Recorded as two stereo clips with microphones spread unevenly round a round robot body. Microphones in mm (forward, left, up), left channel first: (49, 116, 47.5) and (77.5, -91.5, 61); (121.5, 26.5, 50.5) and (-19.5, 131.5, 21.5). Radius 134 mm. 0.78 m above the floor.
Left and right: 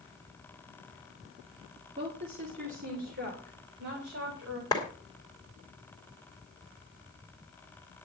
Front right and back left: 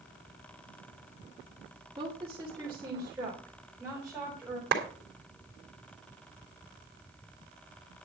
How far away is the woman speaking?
About 2.5 m.